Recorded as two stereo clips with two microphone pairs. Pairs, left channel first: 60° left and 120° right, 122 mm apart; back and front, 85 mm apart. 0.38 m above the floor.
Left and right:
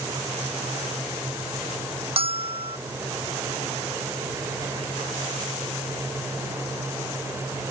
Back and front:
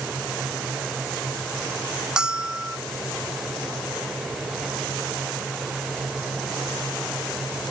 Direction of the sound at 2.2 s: 80° right.